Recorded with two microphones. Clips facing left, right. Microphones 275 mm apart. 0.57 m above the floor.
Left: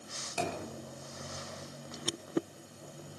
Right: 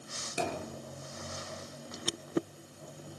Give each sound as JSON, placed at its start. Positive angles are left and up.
{"t": 0.4, "sound": "a thud", "side_deg": -20, "distance_m": 4.5}